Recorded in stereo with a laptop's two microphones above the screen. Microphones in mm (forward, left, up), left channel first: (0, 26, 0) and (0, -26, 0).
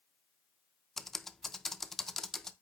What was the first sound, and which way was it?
Typing on a keyboard, 5° left (ahead or behind).